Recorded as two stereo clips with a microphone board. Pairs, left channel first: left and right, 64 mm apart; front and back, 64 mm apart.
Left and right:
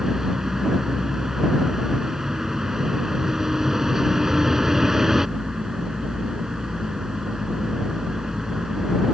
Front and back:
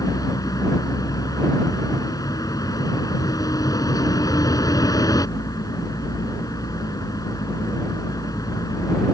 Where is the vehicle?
5° right.